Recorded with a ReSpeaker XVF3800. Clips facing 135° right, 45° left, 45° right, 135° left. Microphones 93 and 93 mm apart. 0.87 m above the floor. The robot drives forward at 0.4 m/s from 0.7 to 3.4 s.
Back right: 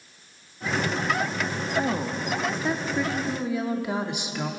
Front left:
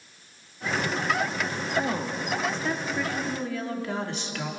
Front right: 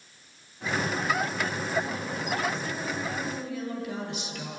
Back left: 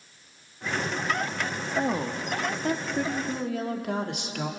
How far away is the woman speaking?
About 1.8 m.